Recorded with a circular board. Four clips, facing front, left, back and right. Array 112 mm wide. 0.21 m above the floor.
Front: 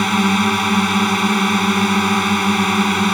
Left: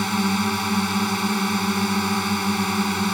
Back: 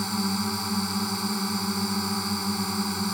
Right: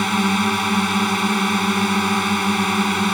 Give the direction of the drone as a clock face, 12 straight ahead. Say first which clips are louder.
Right 3 dB, front 12 dB; 1 o'clock.